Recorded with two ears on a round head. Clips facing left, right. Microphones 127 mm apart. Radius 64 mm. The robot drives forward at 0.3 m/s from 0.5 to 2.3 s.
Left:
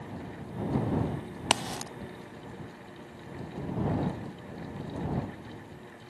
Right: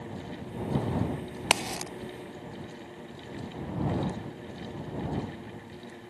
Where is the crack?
15° right (ahead or behind); by 1.9 s 10° right (ahead or behind).